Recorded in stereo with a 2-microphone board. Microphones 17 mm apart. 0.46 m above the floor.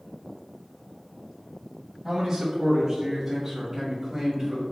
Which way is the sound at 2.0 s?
25° right (ahead or behind).